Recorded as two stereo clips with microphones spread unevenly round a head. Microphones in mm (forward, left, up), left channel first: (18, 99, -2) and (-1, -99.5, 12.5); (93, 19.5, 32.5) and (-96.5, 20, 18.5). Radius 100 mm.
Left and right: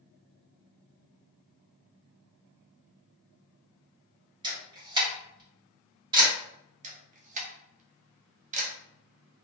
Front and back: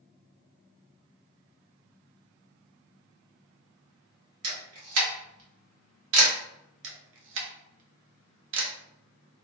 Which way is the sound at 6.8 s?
150° right.